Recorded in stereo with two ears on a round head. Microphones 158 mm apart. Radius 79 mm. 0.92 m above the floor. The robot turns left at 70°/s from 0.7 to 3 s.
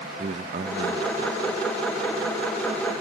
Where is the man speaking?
65° right, 1.0 m; by 1.6 s 130° right, 1.0 m.